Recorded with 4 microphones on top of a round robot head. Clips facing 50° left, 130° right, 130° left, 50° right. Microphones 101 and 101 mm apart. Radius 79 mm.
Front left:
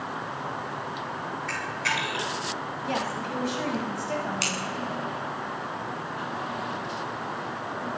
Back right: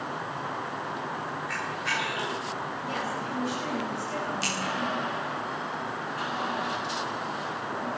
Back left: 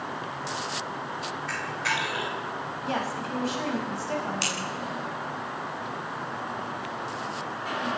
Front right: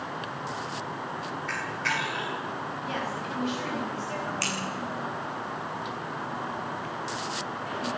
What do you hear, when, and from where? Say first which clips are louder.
1.5 s a camera shutter: front left 1 dB, back left 1 dB; 50° left, 7 m
2.8 s a woman speaking: front left 4 dB, back left 4 dB; 80° left, 5.5 m
4.4 s scissors: even, back left 1 dB; 60° left, 9 m